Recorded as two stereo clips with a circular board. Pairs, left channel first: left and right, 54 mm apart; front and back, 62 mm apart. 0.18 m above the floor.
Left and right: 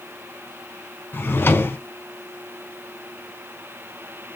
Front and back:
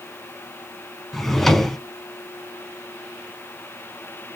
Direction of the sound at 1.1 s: 80° left.